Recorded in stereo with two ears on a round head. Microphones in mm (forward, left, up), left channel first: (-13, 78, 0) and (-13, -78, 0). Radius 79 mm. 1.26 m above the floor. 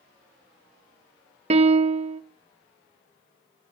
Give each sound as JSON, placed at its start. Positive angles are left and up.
{"t": 1.5, "sound": "a piano", "side_deg": -35, "distance_m": 0.8}